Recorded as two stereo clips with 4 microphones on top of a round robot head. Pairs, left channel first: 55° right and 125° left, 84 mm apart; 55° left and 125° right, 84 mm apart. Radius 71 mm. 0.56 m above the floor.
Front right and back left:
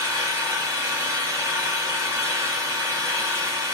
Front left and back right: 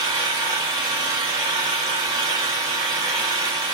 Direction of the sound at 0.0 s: 170° right.